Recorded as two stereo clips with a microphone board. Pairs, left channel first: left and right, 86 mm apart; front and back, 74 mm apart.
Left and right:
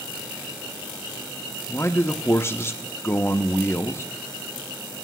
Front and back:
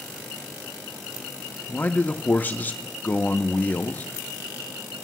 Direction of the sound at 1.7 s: 50° left.